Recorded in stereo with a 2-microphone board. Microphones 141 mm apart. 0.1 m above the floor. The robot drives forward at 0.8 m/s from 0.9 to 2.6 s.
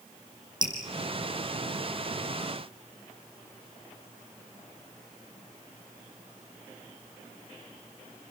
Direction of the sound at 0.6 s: 30° right (ahead or behind).